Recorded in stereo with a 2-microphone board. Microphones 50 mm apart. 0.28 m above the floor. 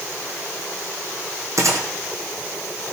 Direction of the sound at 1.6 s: 65° right (ahead or behind).